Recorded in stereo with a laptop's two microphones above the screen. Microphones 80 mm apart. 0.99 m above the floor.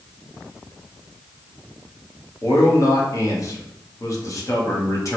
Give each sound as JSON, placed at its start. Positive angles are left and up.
{"t": 2.4, "sound": "a man speaking", "side_deg": 40, "distance_m": 1.0}